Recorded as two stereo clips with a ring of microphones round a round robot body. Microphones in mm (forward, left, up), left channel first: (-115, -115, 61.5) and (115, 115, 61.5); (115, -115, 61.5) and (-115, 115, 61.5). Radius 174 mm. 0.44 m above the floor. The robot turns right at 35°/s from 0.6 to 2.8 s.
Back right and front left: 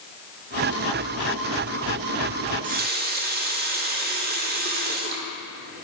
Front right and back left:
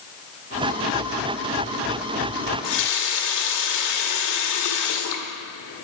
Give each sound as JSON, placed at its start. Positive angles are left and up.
{"t": 2.5, "sound": "a running tap", "azimuth_deg": -30, "distance_m": 0.9}